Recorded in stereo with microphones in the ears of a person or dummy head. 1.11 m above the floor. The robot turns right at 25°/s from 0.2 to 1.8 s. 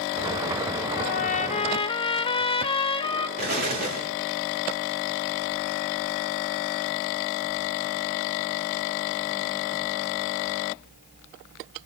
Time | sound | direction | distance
1.0 | a trumpet | 45° left (ahead or behind) | 0.5 m
3.4 | an explosion | 45° right (ahead or behind) | 2.5 m